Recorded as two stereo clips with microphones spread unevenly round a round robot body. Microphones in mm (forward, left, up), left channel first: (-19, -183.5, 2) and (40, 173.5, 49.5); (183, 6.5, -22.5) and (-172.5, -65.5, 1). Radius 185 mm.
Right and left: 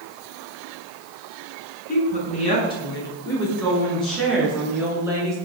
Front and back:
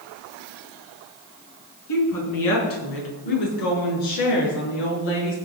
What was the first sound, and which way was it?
A woman speaking, 30° right.